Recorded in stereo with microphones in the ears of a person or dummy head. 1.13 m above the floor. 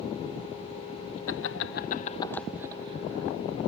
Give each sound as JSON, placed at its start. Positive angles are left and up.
{"t": 1.3, "sound": "laughter", "side_deg": 65}